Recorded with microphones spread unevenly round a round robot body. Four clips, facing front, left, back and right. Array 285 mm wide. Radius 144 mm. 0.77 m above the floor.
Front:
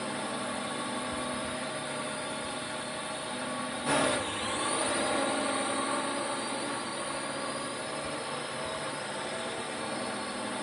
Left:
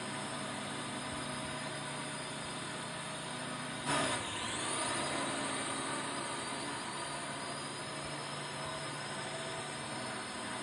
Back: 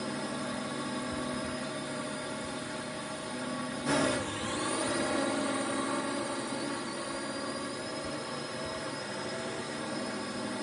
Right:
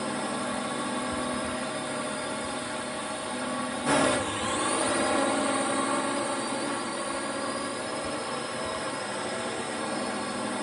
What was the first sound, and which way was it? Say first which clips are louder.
A drone: right 11 dB, front 1 dB; 105° right.